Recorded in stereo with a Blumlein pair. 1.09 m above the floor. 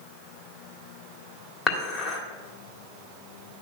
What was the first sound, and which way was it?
Dishes clattering, 15° left.